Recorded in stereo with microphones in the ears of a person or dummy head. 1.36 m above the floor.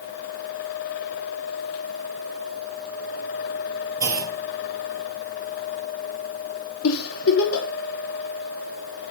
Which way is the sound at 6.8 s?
80° left.